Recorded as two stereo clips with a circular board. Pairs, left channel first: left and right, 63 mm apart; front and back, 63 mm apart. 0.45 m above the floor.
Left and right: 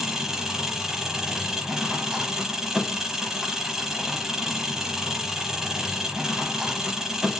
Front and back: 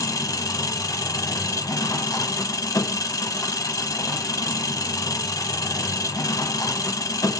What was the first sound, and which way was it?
An engine running, 10° right.